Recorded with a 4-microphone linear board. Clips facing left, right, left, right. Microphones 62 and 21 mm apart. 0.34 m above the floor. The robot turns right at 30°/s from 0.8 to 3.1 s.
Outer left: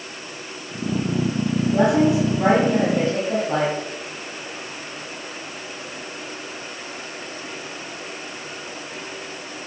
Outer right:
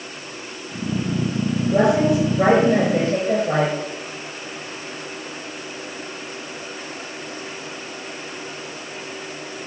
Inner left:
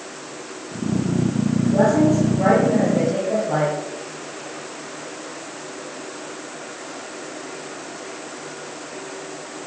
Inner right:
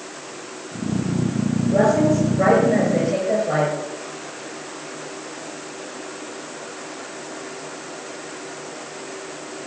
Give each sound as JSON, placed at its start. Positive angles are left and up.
{"t": 1.7, "sound": "a woman speaking", "azimuth_deg": -125, "distance_m": 7.0}